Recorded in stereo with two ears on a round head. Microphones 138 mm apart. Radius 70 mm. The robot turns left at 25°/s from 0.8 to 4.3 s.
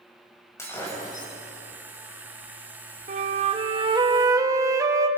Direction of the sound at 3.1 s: 125° right.